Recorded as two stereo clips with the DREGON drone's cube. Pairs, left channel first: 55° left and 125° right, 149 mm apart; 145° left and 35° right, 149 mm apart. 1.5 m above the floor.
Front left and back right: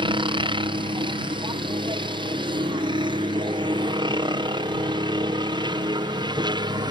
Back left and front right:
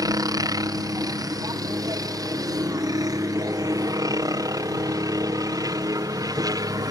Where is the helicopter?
90° right; by 6.9 s 85° right.